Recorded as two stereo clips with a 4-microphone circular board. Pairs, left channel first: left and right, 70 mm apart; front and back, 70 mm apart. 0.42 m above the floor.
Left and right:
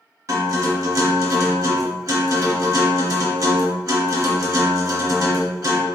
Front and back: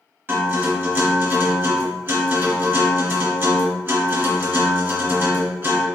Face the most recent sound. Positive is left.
turn(degrees=-125)